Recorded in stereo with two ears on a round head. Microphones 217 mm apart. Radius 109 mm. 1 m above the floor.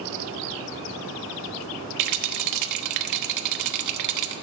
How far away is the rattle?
About 1.0 m.